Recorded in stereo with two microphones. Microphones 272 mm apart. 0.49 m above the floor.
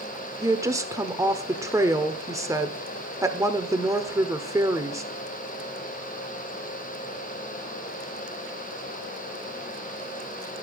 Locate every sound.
0.4 s a woman speaking: 10° right (ahead or behind), 1.1 m